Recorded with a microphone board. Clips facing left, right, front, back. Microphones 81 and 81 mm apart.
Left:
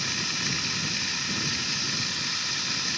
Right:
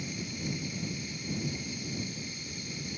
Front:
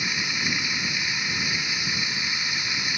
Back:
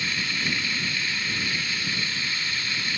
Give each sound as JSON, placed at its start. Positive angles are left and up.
{"t": 0.0, "sound": "running water", "azimuth_deg": 75}